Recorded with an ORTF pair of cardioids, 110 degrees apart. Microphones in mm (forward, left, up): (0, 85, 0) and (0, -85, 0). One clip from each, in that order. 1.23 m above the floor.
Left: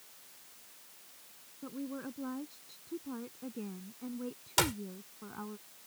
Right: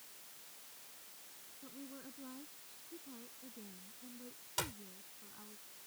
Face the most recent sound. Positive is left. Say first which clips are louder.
# left 11 dB
turn(degrees=60)